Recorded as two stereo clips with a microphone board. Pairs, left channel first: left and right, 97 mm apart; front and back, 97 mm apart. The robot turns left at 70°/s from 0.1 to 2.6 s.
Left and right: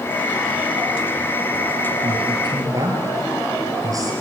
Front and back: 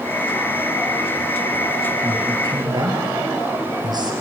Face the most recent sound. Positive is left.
turn(degrees=-140)